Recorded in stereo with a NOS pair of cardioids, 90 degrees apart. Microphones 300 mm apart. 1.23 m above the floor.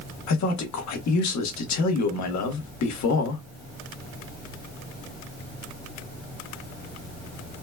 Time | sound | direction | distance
0.3 | a man speaking | 70° left | 1.6 m